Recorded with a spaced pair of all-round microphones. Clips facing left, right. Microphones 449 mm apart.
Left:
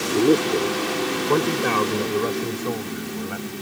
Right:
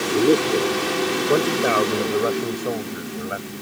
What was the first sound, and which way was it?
A man speaking, 10° left (ahead or behind).